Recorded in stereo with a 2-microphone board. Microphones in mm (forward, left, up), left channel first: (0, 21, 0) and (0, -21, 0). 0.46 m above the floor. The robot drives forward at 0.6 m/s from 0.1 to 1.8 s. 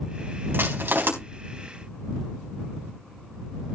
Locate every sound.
0.5 s crushing: 60° right (ahead or behind), 4 m